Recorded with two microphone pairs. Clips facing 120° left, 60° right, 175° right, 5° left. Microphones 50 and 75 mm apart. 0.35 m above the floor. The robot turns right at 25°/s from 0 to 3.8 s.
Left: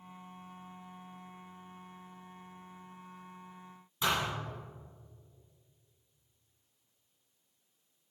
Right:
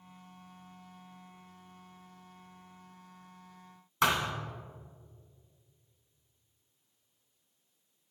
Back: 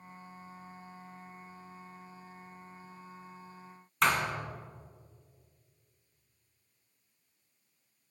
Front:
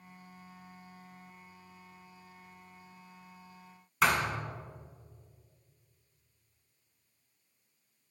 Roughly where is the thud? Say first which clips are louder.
Right 3 dB, even; right.